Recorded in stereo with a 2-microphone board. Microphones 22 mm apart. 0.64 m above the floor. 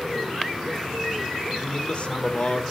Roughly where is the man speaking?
Left.